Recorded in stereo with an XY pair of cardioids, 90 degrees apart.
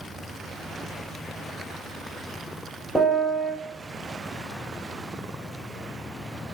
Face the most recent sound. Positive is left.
turn(degrees=15)